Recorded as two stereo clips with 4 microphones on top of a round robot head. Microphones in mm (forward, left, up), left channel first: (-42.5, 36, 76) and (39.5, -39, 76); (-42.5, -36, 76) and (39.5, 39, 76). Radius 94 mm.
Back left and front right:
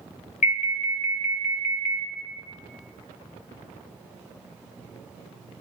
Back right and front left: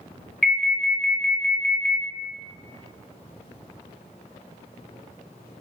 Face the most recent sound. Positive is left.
turn(degrees=135)